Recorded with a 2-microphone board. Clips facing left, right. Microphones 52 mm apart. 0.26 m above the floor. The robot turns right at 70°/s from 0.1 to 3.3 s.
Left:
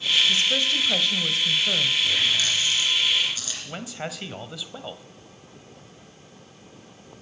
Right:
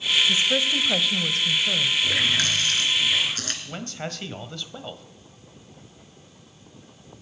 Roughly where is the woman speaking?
Centre.